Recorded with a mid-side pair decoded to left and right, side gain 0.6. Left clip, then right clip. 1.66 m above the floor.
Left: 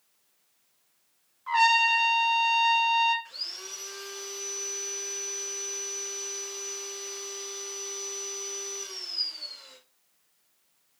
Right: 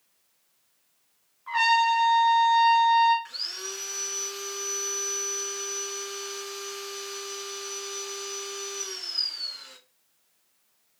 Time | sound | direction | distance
1.5 | a trumpet | 20° left | 1.1 m
3.2 | sawing | 35° right | 1.6 m